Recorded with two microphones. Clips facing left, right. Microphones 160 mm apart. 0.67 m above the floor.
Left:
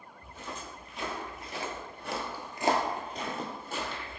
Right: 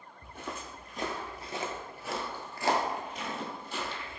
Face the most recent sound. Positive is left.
turn(degrees=55)  # may be behind; listen again after turning